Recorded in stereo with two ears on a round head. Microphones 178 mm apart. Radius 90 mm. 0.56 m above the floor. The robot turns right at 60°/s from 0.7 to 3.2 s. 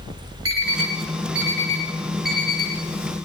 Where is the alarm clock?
85° right, 2.5 m; by 3.2 s 55° left (ahead or behind), 2.5 m.